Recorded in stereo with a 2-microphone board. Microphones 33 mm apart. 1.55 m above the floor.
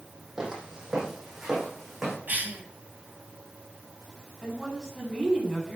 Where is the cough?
55° right (ahead or behind), 4 m.